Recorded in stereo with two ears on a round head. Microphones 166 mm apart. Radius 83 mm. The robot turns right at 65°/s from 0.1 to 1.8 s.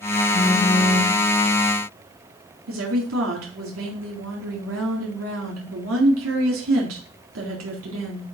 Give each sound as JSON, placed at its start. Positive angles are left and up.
{"t": 0.3, "sound": "a phone buzzing", "azimuth_deg": 125, "distance_m": 1.6}
{"t": 2.7, "sound": "a woman speaking", "side_deg": -90, "distance_m": 4.0}